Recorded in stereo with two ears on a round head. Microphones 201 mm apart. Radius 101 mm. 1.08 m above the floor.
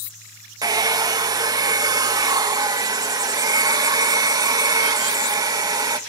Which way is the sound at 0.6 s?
20° right (ahead or behind).